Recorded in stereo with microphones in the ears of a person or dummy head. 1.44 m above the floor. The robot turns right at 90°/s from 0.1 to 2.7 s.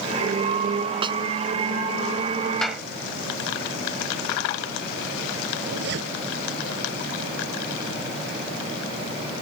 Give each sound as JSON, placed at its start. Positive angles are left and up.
{"t": 1.0, "sound": "a snare drum", "side_deg": -30}
{"t": 2.6, "sound": "a clap", "side_deg": 5}
{"t": 5.6, "sound": "a zipper", "side_deg": -65}